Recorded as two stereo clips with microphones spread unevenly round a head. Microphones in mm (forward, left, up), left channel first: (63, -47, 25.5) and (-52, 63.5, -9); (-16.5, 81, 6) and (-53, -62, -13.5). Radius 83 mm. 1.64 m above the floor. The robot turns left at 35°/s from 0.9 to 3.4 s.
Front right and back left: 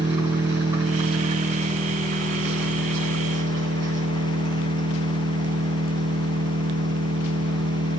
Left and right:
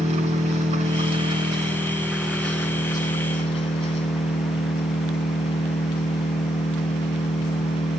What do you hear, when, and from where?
0.0 s an engine running: 150° right, 8 m; by 8.0 s 125° left, 8 m